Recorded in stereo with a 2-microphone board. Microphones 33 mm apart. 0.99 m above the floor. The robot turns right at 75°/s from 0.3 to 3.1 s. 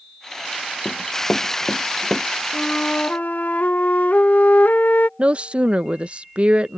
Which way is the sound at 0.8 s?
70° left (ahead or behind).